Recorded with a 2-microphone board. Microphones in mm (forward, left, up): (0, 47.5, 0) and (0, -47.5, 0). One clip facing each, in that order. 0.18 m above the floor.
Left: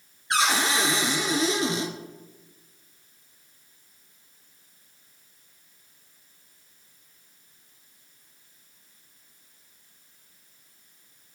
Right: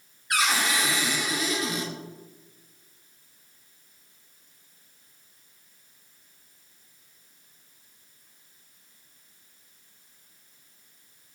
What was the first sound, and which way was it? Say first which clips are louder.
A cupboard door: left 2 dB; 25° left (ahead or behind).